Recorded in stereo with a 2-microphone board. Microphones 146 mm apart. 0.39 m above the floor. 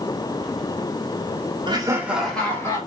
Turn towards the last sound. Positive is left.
turn(degrees=20)  # may be behind; listen again after turning